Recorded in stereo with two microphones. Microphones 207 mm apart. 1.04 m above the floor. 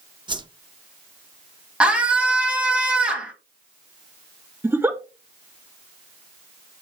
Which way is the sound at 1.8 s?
5° right (ahead or behind).